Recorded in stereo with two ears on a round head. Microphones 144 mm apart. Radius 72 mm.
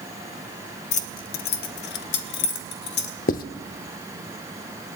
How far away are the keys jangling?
About 0.7 m.